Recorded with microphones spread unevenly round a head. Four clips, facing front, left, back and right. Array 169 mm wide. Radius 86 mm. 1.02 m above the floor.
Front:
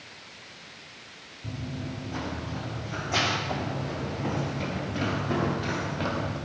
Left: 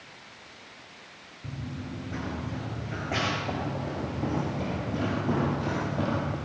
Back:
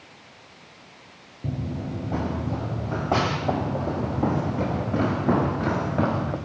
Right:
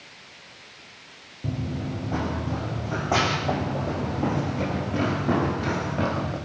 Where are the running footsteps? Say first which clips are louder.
Right 8 dB, back 5 dB; 140° right, 3.5 m; by 6.4 s 170° right, 5.5 m.